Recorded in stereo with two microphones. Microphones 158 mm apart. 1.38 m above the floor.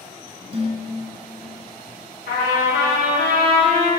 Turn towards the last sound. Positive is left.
turn(degrees=75)  # may be behind; listen again after turning